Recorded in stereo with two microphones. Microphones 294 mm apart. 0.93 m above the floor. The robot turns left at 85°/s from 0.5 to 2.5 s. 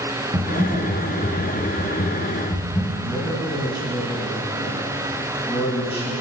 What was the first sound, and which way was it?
Typing on a keyboard, 165° right.